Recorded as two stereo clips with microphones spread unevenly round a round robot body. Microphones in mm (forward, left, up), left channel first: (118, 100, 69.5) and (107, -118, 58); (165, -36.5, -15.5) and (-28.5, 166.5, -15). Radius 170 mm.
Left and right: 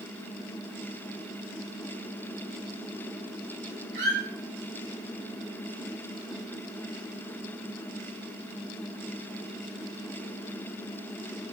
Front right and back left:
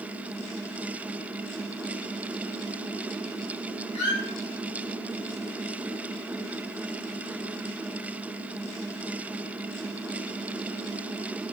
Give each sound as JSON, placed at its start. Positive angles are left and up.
{"t": 3.9, "sound": "a squeak", "azimuth_deg": -50, "distance_m": 1.5}